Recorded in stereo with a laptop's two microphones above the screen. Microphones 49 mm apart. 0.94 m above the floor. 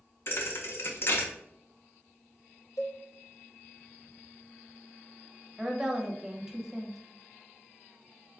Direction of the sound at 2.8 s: 65° left (ahead or behind).